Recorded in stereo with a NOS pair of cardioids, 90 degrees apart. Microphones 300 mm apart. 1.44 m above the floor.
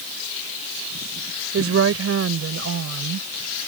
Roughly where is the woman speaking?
Ahead right.